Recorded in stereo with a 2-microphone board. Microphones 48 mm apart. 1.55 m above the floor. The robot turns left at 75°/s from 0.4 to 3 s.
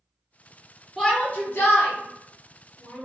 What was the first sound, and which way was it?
A shout, 5° left (ahead or behind).